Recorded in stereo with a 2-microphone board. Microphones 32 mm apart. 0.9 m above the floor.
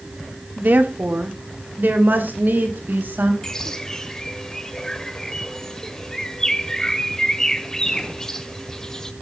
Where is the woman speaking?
65° right (ahead or behind), 1.9 m; by 3.3 s 85° right, 4.5 m.